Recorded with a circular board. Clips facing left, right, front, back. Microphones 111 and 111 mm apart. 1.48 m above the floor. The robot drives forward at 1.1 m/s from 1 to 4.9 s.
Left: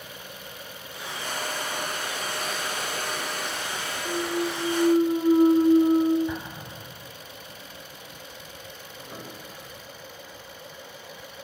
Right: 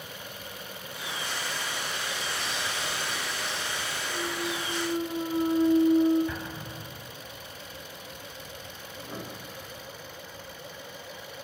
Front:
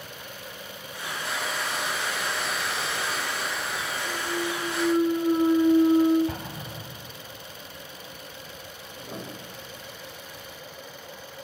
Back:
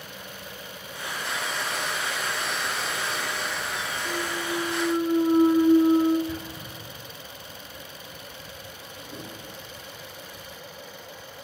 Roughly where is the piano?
Ahead.